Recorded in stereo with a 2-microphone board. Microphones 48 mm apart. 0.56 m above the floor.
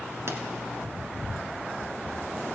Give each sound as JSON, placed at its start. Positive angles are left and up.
{"t": 0.3, "sound": "a pop", "side_deg": -65, "distance_m": 1.1}